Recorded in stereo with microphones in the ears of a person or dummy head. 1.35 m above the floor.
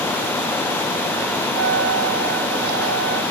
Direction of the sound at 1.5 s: 60° right (ahead or behind).